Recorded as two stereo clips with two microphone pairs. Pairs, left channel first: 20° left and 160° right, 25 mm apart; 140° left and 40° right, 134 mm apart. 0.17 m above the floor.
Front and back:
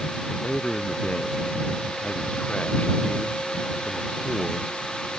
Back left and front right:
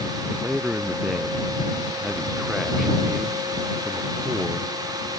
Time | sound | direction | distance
0.3 | a man speaking | 45° left | ?